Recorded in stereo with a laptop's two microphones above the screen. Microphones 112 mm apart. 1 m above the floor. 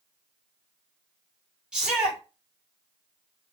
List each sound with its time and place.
1.7 s a shout: 10° right (ahead or behind), 2.5 m